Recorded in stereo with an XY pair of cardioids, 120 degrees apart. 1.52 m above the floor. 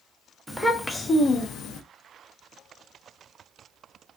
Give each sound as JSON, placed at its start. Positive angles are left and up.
{"t": 0.5, "sound": "a child speaking", "azimuth_deg": 0, "distance_m": 0.8}